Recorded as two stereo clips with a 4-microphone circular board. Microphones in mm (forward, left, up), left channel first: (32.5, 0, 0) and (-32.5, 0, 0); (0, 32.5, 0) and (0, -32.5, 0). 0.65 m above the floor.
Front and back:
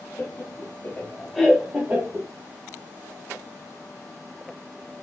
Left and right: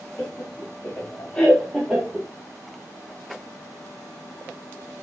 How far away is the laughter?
About 2.5 m.